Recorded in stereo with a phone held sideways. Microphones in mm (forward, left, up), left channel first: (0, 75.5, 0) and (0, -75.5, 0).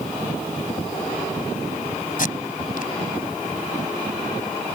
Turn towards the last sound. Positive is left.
turn(degrees=65)  # may be behind; listen again after turning